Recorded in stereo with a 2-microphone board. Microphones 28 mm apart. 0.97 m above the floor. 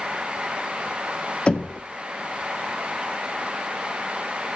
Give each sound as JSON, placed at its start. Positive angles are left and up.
{"t": 1.5, "sound": "knocking", "side_deg": 45, "distance_m": 0.6}